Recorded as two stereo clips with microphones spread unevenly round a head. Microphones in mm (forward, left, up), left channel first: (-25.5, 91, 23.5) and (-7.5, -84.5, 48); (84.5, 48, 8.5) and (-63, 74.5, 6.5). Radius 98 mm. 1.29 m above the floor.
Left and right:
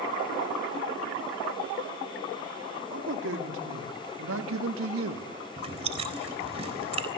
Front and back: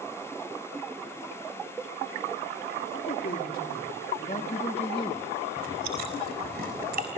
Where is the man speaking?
55° right, 3 m; by 5.3 s 85° right, 1.7 m.